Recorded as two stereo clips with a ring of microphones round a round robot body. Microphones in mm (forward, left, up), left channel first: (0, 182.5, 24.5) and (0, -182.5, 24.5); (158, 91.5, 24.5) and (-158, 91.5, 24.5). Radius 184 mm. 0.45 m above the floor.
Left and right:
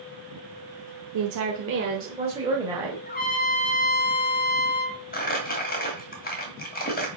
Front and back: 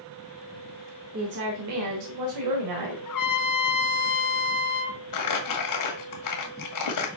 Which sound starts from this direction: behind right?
A woman speaking, at 1.1 s.